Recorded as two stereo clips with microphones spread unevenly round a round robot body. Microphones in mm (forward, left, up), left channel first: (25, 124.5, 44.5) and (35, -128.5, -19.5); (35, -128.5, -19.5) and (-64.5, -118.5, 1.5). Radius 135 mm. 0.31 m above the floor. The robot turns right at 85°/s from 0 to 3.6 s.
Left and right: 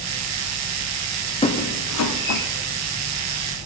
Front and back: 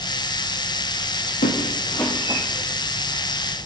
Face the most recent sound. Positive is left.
turn(degrees=-150)